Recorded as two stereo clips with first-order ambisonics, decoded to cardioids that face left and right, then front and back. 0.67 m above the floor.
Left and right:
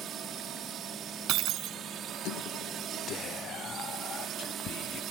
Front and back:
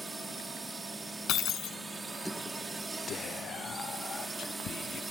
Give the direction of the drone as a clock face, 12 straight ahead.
4 o'clock.